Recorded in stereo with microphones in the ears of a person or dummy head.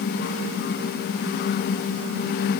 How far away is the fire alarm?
I don't hear a fire alarm.